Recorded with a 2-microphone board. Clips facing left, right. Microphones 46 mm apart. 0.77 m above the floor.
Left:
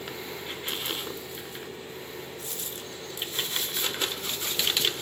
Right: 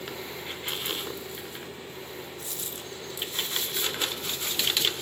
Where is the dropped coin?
45° left (ahead or behind), 0.6 m.